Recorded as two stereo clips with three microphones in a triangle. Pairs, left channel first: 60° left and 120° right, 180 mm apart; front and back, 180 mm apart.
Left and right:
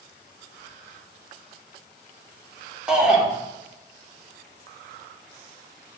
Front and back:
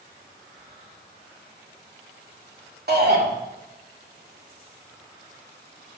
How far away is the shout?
About 2.5 m.